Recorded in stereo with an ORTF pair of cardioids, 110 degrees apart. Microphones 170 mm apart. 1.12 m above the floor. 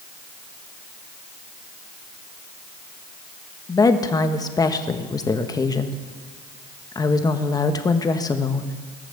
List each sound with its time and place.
3.7 s a woman speaking: 25° left, 1.2 m